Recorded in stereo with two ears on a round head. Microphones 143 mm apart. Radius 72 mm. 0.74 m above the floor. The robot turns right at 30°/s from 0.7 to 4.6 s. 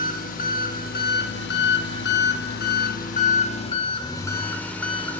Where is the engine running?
55° left, 0.8 m; by 5.2 s 170° left, 0.8 m.